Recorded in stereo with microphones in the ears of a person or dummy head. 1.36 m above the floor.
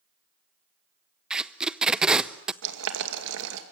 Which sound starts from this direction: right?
Boiling, at 2.6 s.